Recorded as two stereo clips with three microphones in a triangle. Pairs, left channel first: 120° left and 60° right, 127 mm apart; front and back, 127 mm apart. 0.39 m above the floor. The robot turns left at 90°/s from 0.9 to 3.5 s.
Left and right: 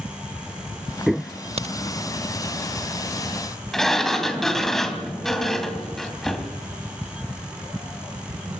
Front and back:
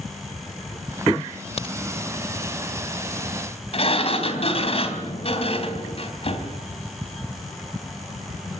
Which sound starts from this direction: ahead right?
A crack, at 1.6 s.